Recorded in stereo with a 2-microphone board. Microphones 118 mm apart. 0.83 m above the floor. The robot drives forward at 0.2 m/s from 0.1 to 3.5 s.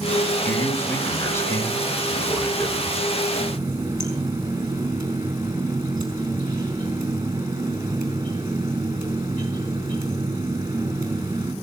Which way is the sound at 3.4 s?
25° right (ahead or behind).